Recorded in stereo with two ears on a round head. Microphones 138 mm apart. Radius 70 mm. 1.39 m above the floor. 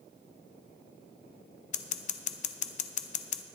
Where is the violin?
I don't hear a violin.